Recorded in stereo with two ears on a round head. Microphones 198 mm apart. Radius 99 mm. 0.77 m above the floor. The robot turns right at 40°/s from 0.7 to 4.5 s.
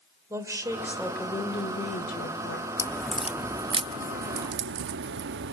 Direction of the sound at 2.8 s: 15° left (ahead or behind).